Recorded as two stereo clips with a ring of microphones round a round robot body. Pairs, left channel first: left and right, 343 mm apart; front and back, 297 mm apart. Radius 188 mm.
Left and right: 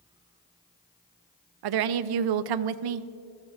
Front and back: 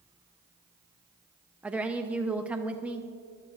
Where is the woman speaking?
95° right, 0.6 m.